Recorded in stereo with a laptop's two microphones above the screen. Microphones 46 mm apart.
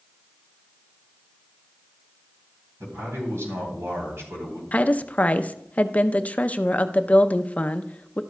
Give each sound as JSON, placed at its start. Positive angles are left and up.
{"t": 2.8, "sound": "a man speaking", "side_deg": -75, "distance_m": 3.5}
{"t": 4.7, "sound": "a woman speaking", "side_deg": 30, "distance_m": 0.5}